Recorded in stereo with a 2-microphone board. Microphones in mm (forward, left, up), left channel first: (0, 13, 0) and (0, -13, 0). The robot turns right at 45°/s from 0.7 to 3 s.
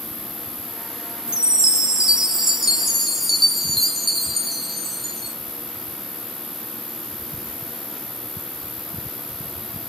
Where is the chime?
30° right (ahead or behind), 0.6 m; by 5.3 s centre (ahead or behind), 0.6 m.